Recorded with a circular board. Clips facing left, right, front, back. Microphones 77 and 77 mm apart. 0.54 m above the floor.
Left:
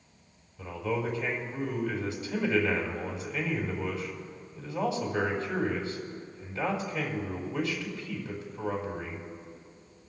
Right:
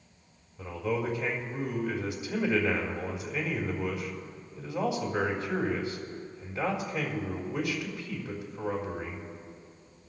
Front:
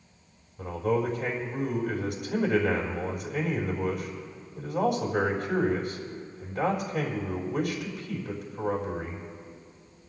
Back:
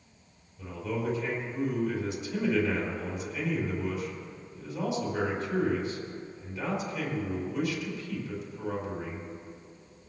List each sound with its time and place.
0.6 s a man speaking: 25° right, 3.5 m